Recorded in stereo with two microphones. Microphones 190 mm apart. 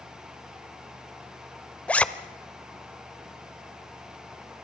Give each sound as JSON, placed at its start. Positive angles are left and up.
{"t": 1.9, "sound": "a zipper", "side_deg": 5, "distance_m": 0.8}